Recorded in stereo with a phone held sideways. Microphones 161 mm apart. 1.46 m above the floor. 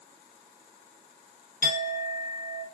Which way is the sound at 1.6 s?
60° left (ahead or behind).